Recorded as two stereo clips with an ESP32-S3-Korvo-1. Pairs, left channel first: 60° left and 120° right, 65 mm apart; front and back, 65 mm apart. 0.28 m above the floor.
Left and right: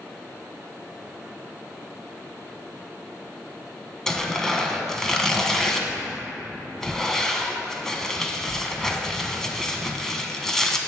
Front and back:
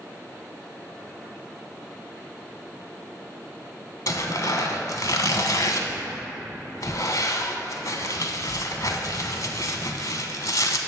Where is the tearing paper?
20° right, 0.8 m.